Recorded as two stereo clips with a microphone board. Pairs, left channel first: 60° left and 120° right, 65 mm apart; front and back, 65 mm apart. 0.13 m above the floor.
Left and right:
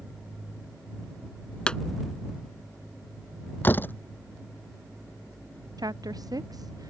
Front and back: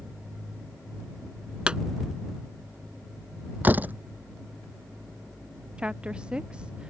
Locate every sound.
1.7 s a pop: 120° left
3.6 s a door slam: 115° left
5.8 s a woman speaking: 105° right